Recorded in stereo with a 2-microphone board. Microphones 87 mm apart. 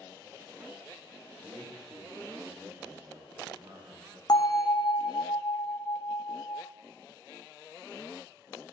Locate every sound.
1.4 s a man speaking: 70° right (ahead or behind), 3.5 m
4.3 s a bell: 55° left (ahead or behind), 1.2 m